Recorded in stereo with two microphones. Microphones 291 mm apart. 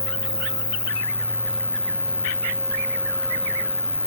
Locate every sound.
0.0 s an insect: 10° left (ahead or behind)